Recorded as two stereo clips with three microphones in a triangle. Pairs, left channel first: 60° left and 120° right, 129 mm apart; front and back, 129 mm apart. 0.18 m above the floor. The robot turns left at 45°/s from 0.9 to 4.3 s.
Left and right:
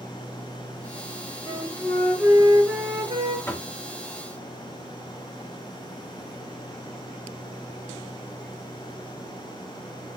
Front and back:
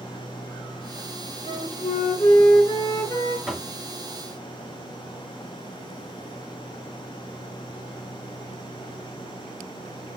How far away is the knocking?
About 1.2 m.